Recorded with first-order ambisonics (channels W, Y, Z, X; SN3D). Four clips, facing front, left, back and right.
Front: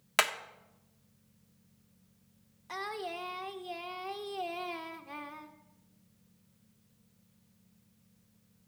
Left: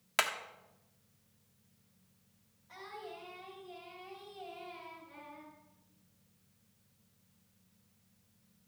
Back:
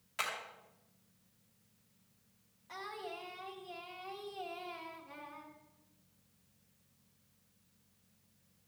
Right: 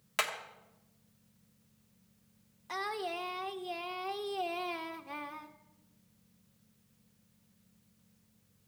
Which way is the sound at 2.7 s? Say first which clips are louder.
Right 11 dB, front 6 dB; 60° right.